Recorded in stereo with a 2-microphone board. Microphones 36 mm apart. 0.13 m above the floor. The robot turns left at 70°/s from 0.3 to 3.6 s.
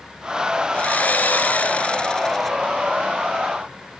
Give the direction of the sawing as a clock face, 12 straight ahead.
8 o'clock.